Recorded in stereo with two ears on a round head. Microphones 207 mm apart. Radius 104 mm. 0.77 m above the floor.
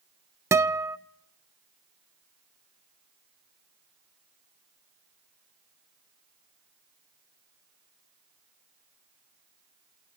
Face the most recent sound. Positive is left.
turn(degrees=-10)  # may be behind; listen again after turning